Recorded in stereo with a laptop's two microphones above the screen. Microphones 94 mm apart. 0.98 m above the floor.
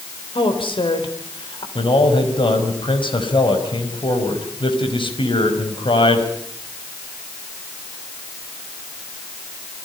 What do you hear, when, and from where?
0.3 s a woman speaking: 70° left (ahead or behind), 4.5 m
1.8 s a man speaking: 65° left (ahead or behind), 5 m